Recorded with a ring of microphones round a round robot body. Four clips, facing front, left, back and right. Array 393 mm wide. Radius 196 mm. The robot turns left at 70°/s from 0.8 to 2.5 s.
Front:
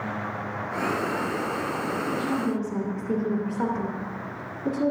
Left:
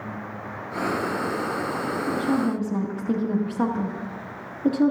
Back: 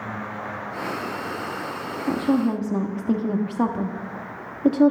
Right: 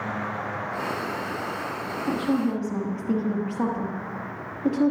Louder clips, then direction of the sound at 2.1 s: Even, back 8 dB; 155° right.